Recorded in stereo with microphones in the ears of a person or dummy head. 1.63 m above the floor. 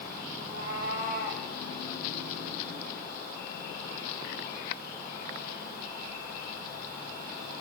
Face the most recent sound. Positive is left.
turn(degrees=-45)  # may be behind; listen again after turning